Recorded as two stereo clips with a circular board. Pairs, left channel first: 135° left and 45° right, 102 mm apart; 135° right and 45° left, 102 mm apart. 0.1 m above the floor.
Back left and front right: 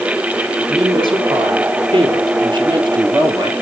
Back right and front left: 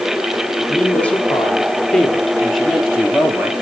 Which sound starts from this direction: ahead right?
A woman speaking, at 0.7 s.